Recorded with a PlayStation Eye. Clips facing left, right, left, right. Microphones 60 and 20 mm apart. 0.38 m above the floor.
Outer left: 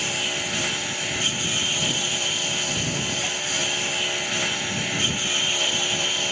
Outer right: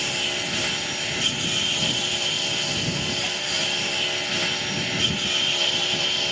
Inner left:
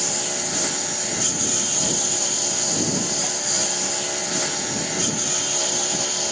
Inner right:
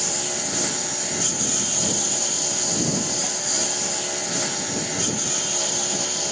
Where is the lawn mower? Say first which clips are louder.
Even, inner left 1 dB; 5° left (ahead or behind).